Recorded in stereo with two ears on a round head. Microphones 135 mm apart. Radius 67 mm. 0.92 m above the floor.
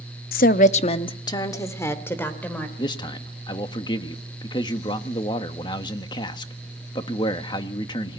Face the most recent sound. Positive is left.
turn(degrees=30)  # may be behind; listen again after turning